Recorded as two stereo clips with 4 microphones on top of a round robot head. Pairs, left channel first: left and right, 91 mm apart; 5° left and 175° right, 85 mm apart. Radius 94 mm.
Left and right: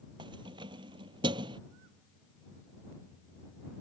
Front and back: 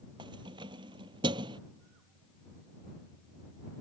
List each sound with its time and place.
0.2 s keys jangling: 135° right